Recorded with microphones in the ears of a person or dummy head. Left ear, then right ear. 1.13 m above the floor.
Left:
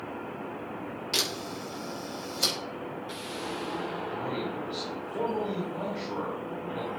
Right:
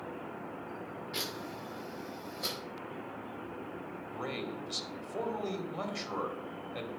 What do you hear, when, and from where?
1.1 s a camera shutter: 75° left (ahead or behind), 5 m
4.1 s a man speaking: 75° right (ahead or behind), 2.5 m